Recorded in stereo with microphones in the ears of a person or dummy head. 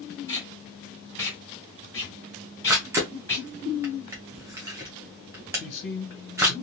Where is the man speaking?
65° left (ahead or behind), 1.6 m.